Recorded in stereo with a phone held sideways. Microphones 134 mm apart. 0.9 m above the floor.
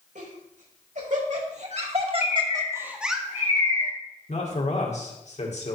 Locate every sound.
0.1 s laughter: 75° right (ahead or behind), 4 m; by 3.2 s centre (ahead or behind), 1.5 m
2.2 s a bird: 60° left (ahead or behind), 3 m
4.3 s a man speaking: 55° left (ahead or behind), 2 m